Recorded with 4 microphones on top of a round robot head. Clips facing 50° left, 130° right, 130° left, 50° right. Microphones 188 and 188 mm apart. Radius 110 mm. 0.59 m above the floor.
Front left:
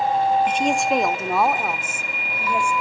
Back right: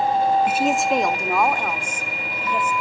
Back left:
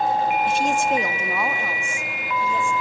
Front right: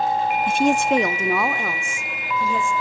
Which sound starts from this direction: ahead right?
A woman speaking, at 0.5 s.